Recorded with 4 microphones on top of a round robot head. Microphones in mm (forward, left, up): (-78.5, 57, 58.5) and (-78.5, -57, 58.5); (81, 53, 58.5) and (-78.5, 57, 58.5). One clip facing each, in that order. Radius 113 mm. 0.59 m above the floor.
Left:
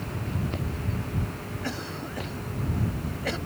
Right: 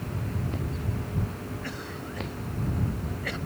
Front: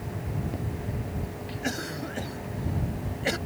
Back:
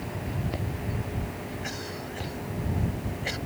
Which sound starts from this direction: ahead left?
A cough, at 1.6 s.